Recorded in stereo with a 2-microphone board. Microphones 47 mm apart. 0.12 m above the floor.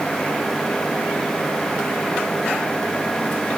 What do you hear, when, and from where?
Only background noise.